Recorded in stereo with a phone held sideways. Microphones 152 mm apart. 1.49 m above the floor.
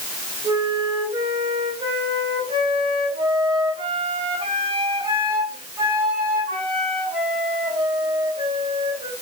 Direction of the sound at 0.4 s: 35° right (ahead or behind).